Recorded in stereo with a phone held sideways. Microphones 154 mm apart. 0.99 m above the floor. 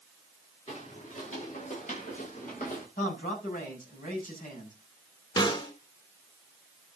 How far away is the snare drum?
About 2.5 m.